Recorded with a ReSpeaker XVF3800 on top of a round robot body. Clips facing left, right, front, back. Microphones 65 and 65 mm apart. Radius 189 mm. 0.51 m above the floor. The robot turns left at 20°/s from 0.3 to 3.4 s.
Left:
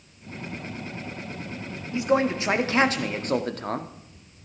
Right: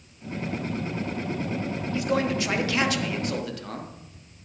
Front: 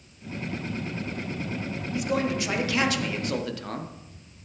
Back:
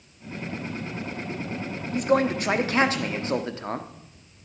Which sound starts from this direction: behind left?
A man speaking, at 1.9 s.